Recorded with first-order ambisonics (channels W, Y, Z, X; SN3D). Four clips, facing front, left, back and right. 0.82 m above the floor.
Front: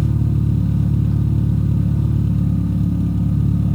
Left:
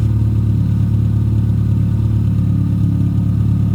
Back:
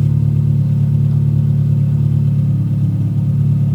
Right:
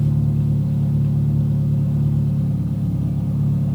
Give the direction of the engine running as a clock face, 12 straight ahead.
10 o'clock.